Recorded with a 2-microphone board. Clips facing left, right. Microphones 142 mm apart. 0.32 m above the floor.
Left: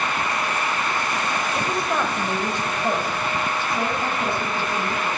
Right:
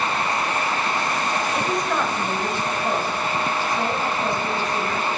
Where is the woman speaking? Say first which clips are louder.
Even; 5° right (ahead or behind), 0.9 m; by 5.1 s 30° left (ahead or behind), 3 m.